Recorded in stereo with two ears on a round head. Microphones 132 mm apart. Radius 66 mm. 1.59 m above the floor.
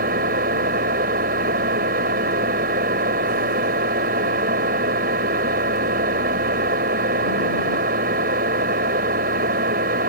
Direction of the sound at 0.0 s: 70° right (ahead or behind).